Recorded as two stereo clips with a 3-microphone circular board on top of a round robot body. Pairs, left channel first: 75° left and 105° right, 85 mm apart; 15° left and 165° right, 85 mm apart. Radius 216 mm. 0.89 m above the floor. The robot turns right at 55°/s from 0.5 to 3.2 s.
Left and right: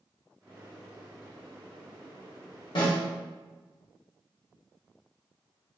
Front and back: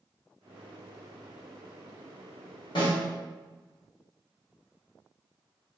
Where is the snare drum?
45° left, 1.5 m; by 3.0 s 60° left, 1.5 m.